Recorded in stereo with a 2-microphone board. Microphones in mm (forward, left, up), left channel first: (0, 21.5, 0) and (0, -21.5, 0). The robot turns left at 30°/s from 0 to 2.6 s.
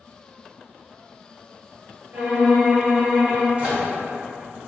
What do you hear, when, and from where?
2.1 s a violin: 50° right (ahead or behind), 1.7 m; by 3.5 s 65° right (ahead or behind), 1.7 m
3.6 s a microwave: 35° right (ahead or behind), 1.3 m